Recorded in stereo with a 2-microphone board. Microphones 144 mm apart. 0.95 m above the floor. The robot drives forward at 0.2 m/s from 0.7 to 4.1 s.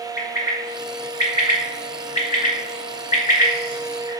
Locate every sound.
0.2 s a bird: 75° left (ahead or behind), 1.4 m; by 4.1 s 55° left (ahead or behind), 1.7 m